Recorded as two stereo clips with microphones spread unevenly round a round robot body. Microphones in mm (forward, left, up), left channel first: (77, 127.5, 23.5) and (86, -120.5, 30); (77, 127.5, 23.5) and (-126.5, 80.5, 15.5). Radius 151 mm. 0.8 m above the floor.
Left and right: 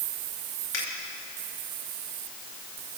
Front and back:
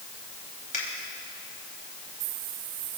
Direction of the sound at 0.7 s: 60° left.